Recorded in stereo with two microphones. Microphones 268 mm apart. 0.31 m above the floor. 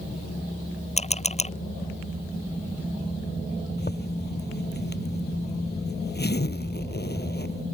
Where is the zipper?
40° left (ahead or behind).